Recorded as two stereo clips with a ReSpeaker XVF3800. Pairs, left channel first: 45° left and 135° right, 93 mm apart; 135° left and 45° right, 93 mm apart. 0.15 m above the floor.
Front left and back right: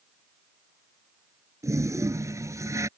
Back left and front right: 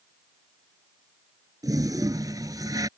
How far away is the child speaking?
No child speaking in this recording.